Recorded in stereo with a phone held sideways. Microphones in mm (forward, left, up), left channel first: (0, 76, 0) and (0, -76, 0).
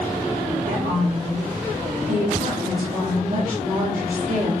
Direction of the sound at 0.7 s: 65° right (ahead or behind).